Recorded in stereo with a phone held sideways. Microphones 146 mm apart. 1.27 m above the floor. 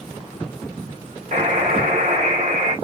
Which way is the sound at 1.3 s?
65° right (ahead or behind).